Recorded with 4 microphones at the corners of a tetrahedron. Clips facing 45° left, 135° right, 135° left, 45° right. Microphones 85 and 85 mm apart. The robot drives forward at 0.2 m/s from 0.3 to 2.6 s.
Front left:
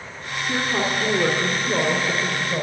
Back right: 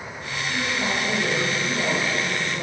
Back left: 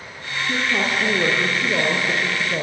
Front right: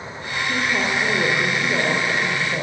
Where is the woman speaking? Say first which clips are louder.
Front left 3 dB, even; 85° left, 4.5 m; by 2.6 s 90° left, 4.5 m.